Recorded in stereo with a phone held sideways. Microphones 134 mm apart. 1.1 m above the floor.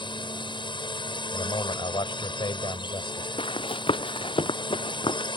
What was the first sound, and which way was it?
A drone, 35° left (ahead or behind).